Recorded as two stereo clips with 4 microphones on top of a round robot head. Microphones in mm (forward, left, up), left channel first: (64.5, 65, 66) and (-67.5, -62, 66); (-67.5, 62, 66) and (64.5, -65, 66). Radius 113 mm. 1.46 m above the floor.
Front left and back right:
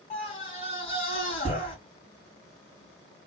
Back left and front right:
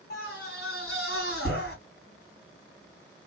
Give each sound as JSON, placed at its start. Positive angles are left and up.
{"t": 0.1, "sound": "a scream", "azimuth_deg": 105, "distance_m": 2.5}